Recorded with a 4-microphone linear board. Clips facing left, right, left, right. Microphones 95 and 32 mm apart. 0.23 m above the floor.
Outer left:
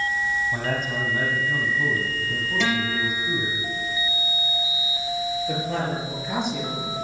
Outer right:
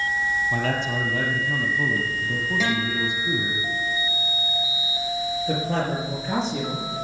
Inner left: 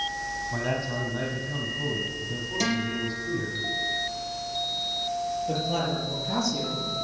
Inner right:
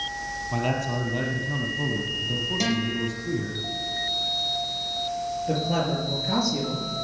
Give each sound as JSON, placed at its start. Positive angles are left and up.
{"t": 0.5, "sound": "a man speaking", "side_deg": -80, "distance_m": 6.0}
{"t": 2.6, "sound": "a guitar", "side_deg": -10, "distance_m": 5.5}
{"t": 5.5, "sound": "a man speaking", "side_deg": -35, "distance_m": 5.5}